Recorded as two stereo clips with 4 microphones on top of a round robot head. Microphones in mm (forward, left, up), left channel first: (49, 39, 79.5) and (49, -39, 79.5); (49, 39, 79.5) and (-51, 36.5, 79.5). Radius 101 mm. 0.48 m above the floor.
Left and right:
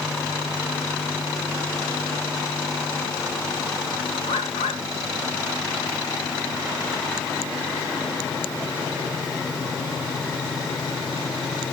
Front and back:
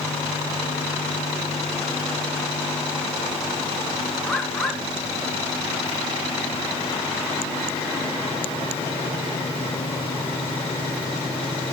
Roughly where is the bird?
Left.